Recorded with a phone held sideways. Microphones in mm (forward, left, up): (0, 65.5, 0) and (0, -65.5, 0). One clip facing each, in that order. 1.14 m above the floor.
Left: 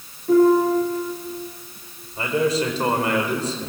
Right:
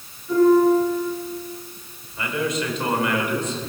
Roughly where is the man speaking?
Left.